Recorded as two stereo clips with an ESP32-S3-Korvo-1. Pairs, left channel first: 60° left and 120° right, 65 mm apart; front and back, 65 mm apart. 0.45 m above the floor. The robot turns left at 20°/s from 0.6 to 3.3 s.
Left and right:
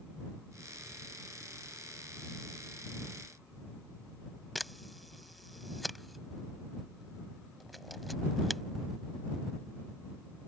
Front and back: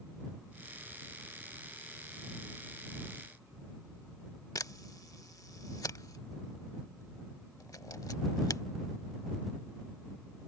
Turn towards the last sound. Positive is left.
turn(degrees=-30)